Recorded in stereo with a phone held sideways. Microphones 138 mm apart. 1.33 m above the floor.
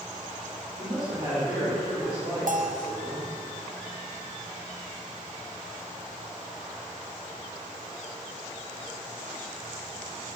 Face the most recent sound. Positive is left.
turn(degrees=-70)  # may be behind; listen again after turning